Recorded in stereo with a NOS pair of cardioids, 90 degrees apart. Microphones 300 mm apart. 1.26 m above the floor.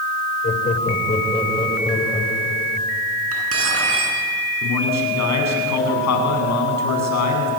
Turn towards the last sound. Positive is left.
turn(degrees=65)